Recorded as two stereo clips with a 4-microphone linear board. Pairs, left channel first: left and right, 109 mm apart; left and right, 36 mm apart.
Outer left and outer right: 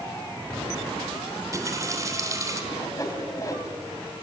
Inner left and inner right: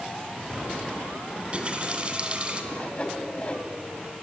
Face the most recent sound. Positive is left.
turn(degrees=30)  # may be behind; listen again after turning